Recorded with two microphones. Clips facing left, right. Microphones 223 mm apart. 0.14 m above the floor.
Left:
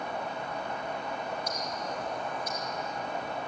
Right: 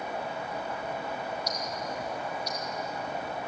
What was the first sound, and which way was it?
Ticking, 50° left (ahead or behind).